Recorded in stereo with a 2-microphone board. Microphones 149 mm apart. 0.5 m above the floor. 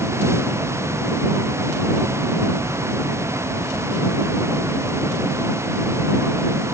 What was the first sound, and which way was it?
Only background noise.